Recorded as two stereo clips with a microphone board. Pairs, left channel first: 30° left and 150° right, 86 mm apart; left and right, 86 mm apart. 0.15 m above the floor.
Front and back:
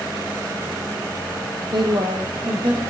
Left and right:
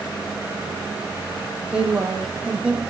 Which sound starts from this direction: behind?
A woman speaking, at 1.6 s.